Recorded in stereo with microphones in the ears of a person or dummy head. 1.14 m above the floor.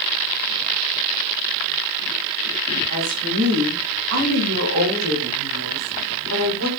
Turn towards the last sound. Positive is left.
turn(degrees=-85)